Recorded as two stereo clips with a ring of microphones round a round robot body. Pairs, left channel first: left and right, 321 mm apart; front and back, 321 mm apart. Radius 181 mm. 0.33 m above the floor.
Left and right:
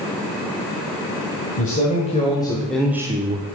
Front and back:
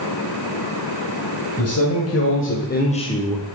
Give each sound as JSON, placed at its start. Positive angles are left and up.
{"t": 1.6, "sound": "a man speaking", "azimuth_deg": 30, "distance_m": 2.5}